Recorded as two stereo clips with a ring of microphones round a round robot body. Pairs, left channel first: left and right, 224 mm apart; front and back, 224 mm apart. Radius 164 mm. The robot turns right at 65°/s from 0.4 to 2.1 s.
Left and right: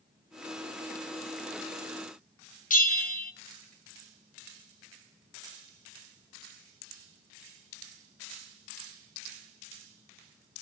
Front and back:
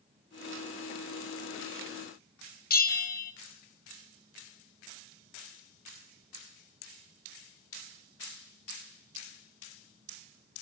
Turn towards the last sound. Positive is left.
turn(degrees=40)